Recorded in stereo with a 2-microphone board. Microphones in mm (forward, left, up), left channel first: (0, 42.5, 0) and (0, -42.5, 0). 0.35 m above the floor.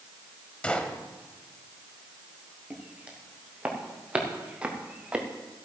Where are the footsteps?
15° right (ahead or behind), 4.5 m.